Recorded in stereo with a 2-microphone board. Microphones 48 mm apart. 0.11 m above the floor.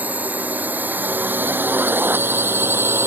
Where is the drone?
35° right (ahead or behind); by 3.1 s 55° right (ahead or behind).